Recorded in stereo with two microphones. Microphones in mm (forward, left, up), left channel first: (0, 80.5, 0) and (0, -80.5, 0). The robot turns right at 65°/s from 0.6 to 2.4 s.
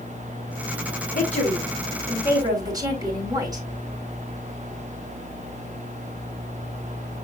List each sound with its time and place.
1.1 s a woman speaking: 120° left, 5 m; by 3.6 s 155° right, 5 m